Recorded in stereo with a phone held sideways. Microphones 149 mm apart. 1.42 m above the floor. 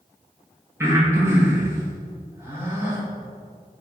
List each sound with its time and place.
0.8 s breathing: 15° right (ahead or behind), 2 m